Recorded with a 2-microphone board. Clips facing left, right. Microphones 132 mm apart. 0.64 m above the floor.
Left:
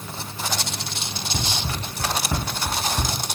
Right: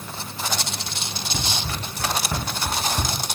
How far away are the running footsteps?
About 2.5 m.